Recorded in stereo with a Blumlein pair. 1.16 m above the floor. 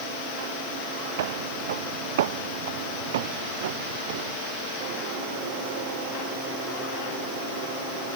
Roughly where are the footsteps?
Ahead right.